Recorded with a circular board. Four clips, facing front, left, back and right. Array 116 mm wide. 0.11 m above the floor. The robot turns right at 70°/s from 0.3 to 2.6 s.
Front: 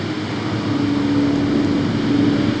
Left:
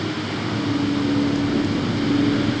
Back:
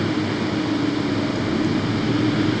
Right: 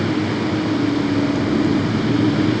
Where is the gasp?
I don't hear a gasp.